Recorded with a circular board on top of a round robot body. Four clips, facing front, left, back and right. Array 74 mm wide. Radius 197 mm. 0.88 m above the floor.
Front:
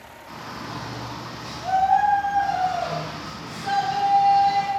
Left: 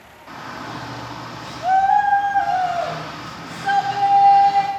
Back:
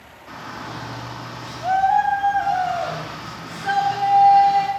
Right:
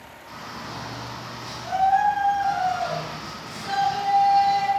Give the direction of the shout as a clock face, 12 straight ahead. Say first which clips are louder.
Left 5 dB, back 2 dB; 8 o'clock.